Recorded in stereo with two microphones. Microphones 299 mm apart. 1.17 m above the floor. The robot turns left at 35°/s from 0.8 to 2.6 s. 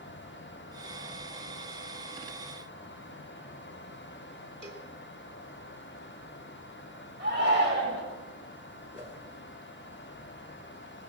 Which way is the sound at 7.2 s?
35° right (ahead or behind).